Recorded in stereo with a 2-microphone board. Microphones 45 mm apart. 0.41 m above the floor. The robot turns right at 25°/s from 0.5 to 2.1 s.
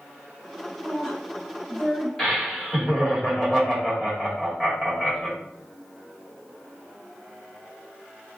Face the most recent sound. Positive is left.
turn(degrees=10)  # may be behind; listen again after turning